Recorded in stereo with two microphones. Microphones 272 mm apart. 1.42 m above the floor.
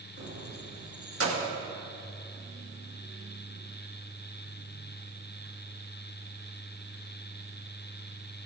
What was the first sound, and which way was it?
Keys jangling, 55° right (ahead or behind).